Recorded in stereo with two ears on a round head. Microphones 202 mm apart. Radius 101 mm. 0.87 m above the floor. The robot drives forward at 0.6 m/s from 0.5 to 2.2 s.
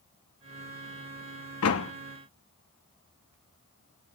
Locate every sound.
1.6 s a door slam: 70° left (ahead or behind), 0.9 m; by 1.9 s 65° left (ahead or behind), 1.0 m